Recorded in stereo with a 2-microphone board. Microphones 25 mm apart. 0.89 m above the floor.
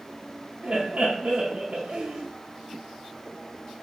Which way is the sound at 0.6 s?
50° right (ahead or behind).